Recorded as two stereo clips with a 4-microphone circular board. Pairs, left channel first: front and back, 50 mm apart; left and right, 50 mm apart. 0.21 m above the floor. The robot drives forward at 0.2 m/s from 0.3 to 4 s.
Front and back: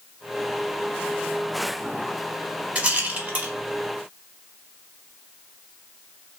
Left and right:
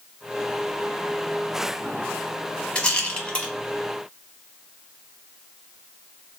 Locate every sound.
2.8 s a rattle: 140° left, 0.7 m; by 3.5 s 150° left, 0.8 m